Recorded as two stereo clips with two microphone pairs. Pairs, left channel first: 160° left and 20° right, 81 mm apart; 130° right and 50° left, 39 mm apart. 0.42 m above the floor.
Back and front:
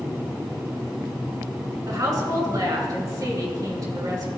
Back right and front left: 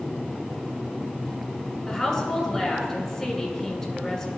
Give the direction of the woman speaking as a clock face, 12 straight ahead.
2 o'clock.